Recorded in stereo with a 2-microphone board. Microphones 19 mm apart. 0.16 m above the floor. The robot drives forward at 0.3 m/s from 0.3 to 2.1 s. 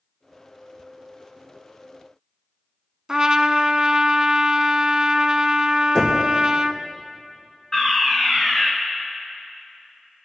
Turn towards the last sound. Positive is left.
turn(degrees=30)  # may be behind; listen again after turning